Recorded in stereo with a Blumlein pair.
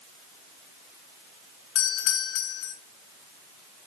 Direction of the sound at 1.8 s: 45° left.